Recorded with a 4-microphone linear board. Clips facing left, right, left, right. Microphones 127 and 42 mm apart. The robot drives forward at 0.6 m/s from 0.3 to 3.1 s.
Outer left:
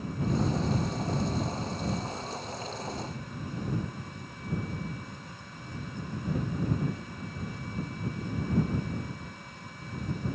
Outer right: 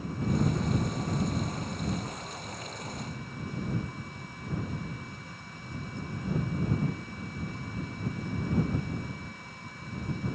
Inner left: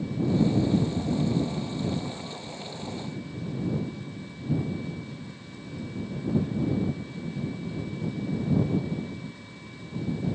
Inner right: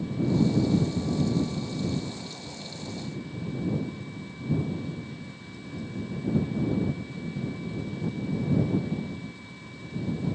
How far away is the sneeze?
I don't hear a sneeze.